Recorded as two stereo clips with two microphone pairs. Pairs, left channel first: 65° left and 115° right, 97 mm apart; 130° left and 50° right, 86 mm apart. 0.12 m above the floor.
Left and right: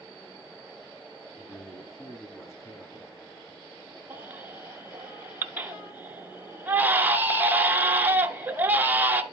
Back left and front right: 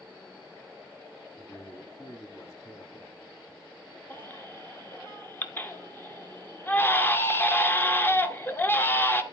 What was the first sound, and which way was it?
A man speaking, 95° left.